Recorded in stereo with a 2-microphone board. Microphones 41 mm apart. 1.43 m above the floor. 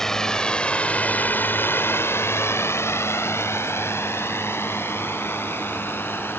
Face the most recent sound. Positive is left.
turn(degrees=60)  # may be behind; listen again after turning